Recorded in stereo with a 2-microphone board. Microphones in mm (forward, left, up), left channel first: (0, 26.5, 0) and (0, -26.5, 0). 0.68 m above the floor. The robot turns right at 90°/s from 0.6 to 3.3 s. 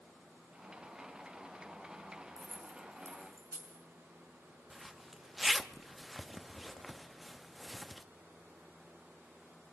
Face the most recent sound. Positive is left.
turn(degrees=0)  # may be behind; listen again after turning